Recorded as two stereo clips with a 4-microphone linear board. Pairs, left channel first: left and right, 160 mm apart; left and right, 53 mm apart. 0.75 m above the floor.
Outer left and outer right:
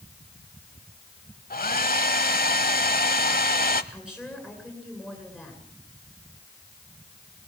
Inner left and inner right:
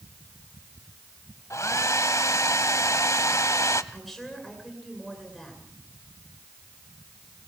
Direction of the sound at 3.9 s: 5° right (ahead or behind).